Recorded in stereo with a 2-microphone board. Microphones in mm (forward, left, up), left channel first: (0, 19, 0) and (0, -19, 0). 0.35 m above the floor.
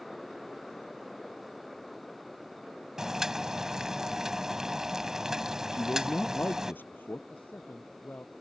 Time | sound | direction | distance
3.0 | boiling | 15° right (ahead or behind) | ?
5.7 | a man speaking | 60° left (ahead or behind) | ?
7.3 | a man speaking | 50° left (ahead or behind) | ?